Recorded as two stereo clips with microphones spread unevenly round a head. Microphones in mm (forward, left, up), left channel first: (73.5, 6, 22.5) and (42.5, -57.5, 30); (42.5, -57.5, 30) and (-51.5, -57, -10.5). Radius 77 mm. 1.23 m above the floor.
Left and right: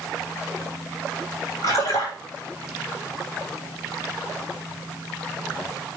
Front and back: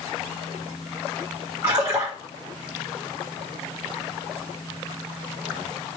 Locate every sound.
1.6 s a splash: 115° left, 2 m